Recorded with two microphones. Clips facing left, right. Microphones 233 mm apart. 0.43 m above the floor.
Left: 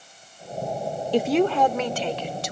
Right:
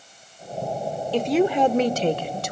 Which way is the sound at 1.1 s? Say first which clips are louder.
Even; 15° left (ahead or behind).